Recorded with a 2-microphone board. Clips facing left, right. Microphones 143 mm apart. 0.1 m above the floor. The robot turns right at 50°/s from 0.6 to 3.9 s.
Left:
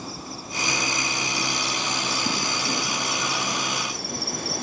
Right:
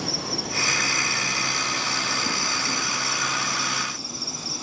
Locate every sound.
0.0 s an insect: 100° right; by 4.6 s 65° left